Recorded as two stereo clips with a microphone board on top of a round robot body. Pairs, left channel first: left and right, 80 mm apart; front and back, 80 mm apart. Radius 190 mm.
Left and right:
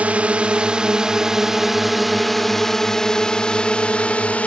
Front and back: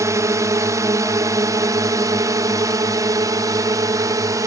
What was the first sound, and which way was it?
A drone, 155° right.